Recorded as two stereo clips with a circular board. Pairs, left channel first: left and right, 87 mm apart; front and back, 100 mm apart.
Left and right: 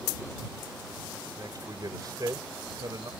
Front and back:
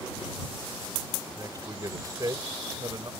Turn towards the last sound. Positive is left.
turn(degrees=-130)